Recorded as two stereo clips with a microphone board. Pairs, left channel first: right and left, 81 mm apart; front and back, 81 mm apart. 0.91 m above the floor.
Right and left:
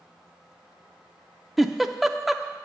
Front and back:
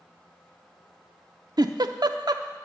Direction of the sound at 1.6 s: Straight behind.